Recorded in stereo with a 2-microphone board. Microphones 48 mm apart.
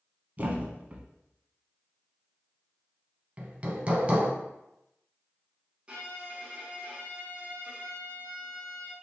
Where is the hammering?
25° right (ahead or behind), 0.6 m.